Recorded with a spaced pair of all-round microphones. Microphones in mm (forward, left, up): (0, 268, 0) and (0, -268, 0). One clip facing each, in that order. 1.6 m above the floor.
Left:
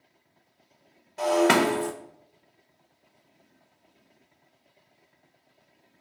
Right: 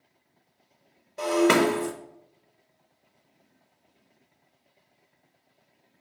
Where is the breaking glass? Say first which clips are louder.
Right 1 dB; 10° left (ahead or behind), 0.8 m.